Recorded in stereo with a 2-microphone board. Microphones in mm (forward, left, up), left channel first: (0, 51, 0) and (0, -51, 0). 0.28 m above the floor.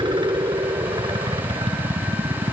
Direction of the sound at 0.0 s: 50° right (ahead or behind).